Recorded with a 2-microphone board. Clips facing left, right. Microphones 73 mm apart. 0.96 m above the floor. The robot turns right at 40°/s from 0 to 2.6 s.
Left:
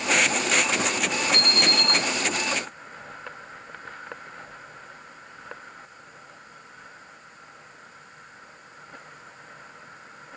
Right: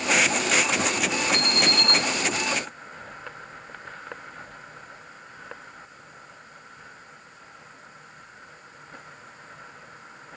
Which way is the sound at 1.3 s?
20° right (ahead or behind).